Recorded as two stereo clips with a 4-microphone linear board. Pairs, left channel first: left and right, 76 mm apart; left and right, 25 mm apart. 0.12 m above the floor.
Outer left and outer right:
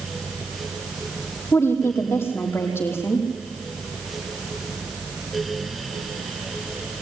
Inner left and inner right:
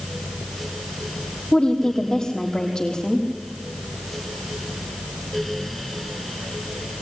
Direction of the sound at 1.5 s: 35° left (ahead or behind).